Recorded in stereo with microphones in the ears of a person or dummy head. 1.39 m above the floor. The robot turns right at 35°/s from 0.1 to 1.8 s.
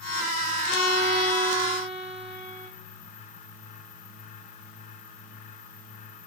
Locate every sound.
0.7 s a violin: 70° left, 0.9 m; by 2.7 s 110° left, 0.9 m